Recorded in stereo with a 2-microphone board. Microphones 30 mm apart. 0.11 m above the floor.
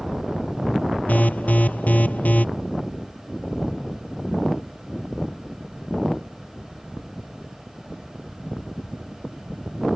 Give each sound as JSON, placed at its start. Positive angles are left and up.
{"t": 1.1, "sound": "an alarm", "side_deg": 55}